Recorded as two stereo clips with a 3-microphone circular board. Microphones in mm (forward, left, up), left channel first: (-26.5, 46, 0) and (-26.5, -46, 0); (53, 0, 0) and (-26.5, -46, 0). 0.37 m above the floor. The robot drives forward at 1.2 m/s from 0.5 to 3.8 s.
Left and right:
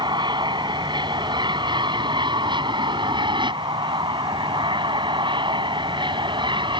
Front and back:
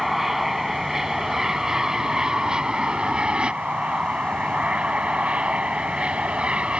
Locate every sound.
0.0 s an aircraft: 65° right; by 6.8 s 70° right